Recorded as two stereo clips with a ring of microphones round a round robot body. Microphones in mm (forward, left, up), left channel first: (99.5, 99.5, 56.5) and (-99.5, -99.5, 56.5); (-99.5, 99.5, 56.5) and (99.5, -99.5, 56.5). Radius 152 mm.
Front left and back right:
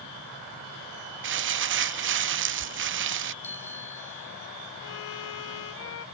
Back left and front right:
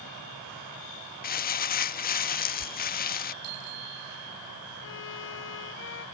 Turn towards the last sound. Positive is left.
turn(degrees=85)